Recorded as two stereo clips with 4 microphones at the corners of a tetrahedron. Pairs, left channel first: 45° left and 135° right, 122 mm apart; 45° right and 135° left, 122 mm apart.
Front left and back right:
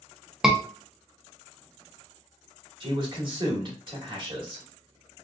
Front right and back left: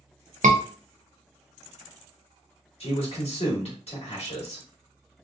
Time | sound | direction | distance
0.4 | a scream | 140° left | 0.6 m
2.8 | a man speaking | 85° right | 1.8 m